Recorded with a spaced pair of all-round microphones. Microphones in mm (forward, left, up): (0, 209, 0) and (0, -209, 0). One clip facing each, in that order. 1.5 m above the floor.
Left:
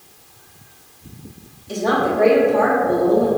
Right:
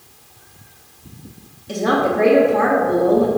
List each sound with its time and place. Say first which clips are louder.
1.7 s a woman speaking: right 1 dB; 70° right (ahead or behind), 0.9 m